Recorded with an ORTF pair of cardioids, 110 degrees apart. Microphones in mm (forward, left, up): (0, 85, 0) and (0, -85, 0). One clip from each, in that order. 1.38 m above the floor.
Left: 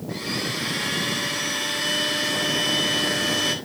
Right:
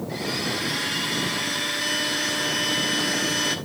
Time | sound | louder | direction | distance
0.1 | a blender | even | 15° left | 3 m